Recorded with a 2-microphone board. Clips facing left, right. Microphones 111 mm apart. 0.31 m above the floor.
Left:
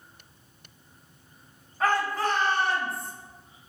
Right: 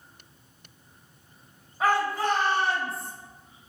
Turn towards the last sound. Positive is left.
turn(degrees=-40)  # may be behind; listen again after turning